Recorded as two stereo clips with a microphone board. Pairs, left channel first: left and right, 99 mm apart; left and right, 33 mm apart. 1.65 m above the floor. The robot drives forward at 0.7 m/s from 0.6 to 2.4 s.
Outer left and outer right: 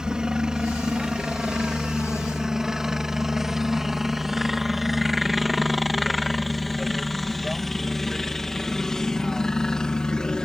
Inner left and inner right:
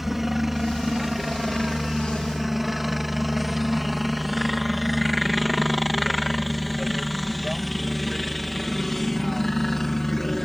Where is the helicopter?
5° right (ahead or behind); by 10.4 s 10° left (ahead or behind).